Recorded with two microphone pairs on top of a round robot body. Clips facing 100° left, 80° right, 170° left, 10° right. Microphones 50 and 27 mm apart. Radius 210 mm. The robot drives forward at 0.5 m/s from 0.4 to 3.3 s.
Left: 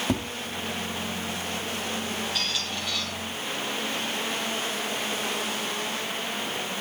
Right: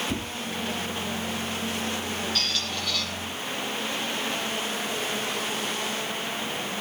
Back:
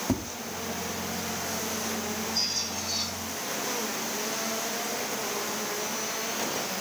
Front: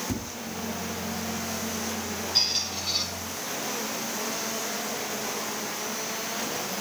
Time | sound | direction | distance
0.1 | tapping | 125° left | 3.5 m
2.4 | a squeak | 20° left | 6 m